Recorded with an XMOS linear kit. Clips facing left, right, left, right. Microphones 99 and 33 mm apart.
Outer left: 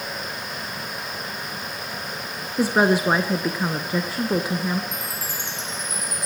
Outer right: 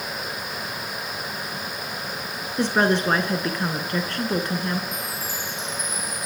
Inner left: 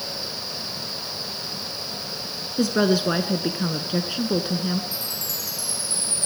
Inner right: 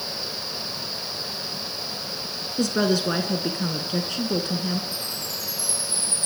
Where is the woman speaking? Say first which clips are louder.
Outer left 2 dB, inner left 2 dB; 10° left (ahead or behind), 1.1 m.